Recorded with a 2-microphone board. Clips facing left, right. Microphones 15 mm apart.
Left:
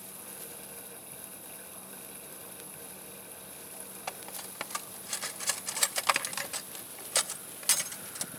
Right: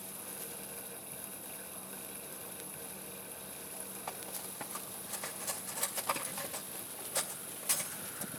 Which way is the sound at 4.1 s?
75° left (ahead or behind).